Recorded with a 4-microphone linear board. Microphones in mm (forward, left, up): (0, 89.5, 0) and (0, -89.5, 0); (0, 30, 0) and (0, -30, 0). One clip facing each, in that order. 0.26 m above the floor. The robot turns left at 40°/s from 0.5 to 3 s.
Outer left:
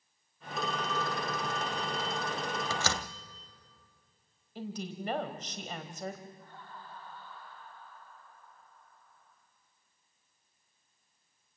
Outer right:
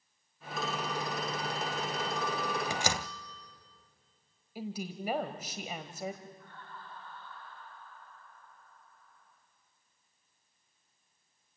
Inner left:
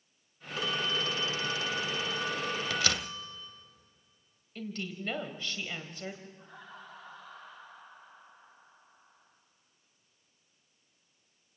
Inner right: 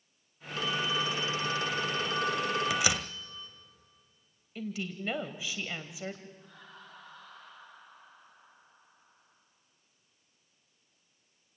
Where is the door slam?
15° right (ahead or behind), 0.7 m.